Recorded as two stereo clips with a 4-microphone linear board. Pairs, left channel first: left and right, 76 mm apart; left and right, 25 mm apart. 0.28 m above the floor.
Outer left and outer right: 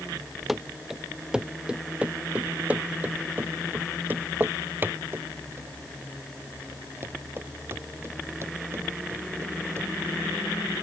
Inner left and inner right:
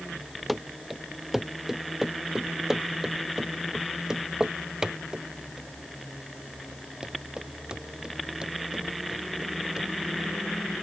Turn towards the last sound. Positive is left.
turn(degrees=-35)  # may be behind; listen again after turning